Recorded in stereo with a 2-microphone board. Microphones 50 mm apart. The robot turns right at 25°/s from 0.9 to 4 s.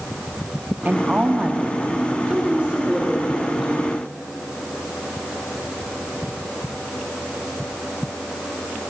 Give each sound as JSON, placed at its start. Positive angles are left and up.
{"t": 0.8, "sound": "a woman speaking", "side_deg": -35, "distance_m": 0.8}
{"t": 2.3, "sound": "a woman speaking", "azimuth_deg": -45, "distance_m": 1.7}